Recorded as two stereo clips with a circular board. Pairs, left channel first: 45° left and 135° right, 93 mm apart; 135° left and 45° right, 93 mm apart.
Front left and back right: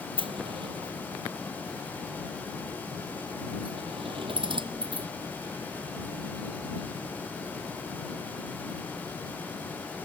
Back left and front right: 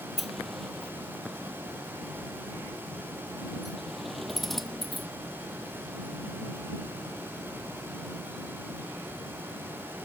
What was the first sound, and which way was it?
A sliding door, 135° right.